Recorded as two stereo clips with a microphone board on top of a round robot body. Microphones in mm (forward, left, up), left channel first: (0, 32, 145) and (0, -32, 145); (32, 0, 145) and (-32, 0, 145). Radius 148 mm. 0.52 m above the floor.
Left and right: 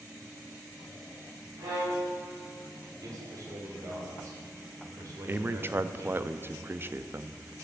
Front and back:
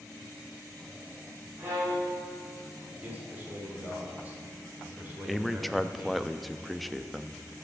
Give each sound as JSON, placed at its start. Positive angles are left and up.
{"t": 1.6, "sound": "a violin", "azimuth_deg": -120, "distance_m": 4.5}
{"t": 3.0, "sound": "a man speaking", "azimuth_deg": -120, "distance_m": 3.0}
{"t": 5.3, "sound": "a man speaking", "azimuth_deg": -90, "distance_m": 0.7}